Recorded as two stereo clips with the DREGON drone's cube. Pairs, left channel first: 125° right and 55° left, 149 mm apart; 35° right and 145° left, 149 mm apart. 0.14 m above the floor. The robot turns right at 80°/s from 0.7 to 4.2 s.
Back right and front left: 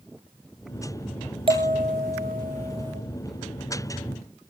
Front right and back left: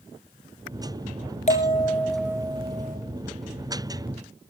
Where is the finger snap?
No finger snap in this recording.